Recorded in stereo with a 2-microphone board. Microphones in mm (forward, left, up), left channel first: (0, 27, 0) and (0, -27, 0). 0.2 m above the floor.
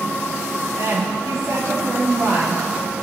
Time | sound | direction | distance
0.8 | a woman speaking | 55° right (ahead or behind) | 4.5 m